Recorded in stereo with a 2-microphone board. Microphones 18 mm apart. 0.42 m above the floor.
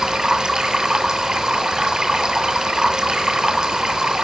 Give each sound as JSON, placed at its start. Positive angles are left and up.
{"t": 0.0, "sound": "running water", "side_deg": -35, "distance_m": 1.6}